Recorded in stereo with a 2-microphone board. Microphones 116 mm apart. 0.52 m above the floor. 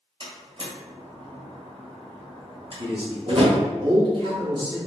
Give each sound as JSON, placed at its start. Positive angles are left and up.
{"t": 0.2, "sound": "a door slam", "side_deg": -55, "distance_m": 1.4}
{"t": 2.8, "sound": "a man speaking", "side_deg": -50, "distance_m": 1.7}